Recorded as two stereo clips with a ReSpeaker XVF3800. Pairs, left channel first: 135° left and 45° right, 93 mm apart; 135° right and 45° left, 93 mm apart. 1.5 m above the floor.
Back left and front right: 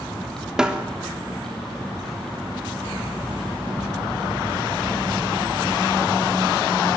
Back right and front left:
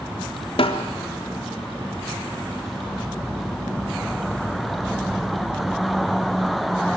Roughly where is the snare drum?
Behind right.